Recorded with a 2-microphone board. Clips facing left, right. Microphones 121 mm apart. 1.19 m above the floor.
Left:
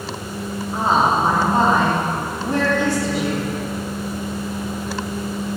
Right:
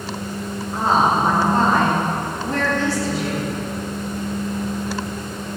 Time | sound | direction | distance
0.7 | a woman speaking | 20° left (ahead or behind) | 3 m